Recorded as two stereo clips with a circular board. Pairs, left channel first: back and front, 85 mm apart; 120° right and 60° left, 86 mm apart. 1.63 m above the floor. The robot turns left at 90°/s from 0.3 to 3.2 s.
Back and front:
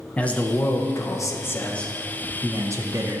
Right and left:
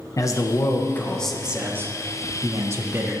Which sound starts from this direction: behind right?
A man speaking, at 0.2 s.